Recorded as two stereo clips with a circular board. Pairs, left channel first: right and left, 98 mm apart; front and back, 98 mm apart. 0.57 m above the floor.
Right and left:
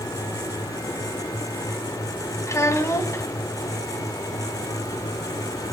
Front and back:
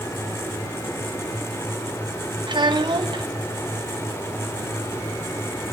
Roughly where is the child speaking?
Behind right.